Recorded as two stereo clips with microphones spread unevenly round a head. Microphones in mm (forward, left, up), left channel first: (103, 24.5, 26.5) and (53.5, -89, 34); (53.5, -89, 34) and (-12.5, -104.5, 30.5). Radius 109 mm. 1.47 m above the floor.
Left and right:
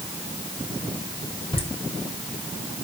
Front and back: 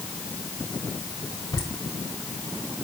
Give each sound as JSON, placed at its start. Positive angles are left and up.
{"t": 1.5, "sound": "laughter", "azimuth_deg": 25, "distance_m": 6.5}